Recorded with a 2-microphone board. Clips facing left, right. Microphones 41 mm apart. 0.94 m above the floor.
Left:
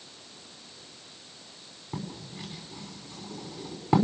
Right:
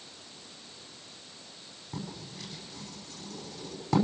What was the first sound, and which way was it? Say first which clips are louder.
Writing: left 2 dB; 20° left (ahead or behind).